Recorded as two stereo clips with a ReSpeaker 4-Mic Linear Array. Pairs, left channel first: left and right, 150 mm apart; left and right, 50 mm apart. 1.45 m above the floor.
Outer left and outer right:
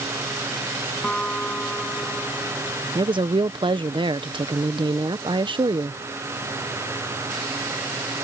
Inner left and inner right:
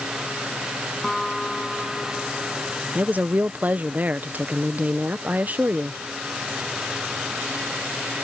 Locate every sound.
1.0 s a guitar: 5° left (ahead or behind)
3.0 s a woman speaking: 35° right (ahead or behind)